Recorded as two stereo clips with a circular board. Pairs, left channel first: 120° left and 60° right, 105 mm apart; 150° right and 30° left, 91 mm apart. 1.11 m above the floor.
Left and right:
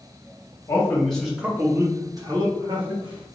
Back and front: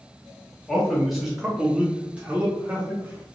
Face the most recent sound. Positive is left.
turn(degrees=-45)